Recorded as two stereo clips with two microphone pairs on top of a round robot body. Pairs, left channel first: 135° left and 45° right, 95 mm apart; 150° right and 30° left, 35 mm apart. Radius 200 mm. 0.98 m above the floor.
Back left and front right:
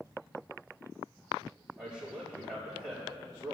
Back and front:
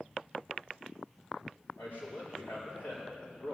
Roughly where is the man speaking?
Behind right.